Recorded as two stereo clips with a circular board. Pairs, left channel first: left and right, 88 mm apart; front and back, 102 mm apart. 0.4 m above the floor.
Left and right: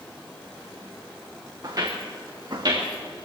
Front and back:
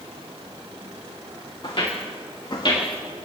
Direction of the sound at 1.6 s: 40° right.